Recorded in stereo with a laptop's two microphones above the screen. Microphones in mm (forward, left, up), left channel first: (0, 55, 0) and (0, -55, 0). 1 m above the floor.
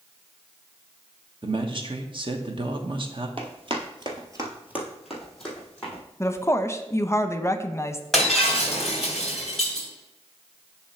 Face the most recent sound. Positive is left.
turn(degrees=5)  # may be behind; listen again after turning